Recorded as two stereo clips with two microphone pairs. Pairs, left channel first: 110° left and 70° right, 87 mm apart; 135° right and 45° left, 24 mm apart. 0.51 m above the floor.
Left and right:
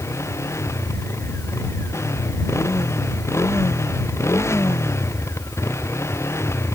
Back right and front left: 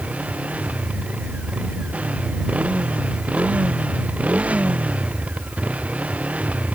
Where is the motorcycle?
55° left.